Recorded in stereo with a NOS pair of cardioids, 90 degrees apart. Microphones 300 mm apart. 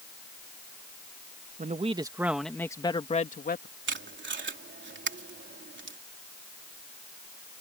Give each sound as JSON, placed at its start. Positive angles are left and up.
{"t": 1.6, "sound": "a man speaking", "azimuth_deg": -25}
{"t": 3.9, "sound": "tape being pulled", "azimuth_deg": -35}